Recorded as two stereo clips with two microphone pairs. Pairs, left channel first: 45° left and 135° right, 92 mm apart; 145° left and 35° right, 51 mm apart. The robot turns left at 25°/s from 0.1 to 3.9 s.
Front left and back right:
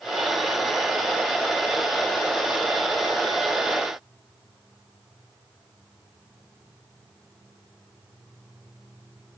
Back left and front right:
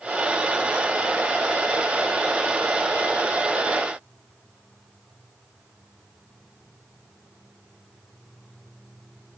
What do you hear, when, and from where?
Only background noise.